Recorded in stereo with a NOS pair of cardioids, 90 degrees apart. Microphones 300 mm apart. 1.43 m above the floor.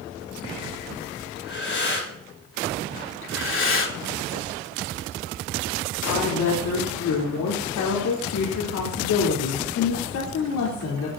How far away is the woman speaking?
About 3.5 m.